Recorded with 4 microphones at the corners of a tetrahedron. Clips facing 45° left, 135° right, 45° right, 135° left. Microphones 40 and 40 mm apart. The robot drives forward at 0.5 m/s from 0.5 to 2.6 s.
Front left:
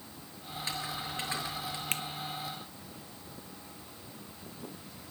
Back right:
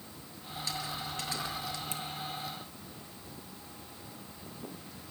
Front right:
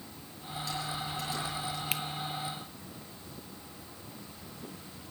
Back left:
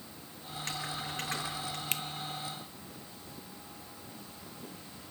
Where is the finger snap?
35° left, 0.9 m; by 2.0 s 40° left, 0.9 m.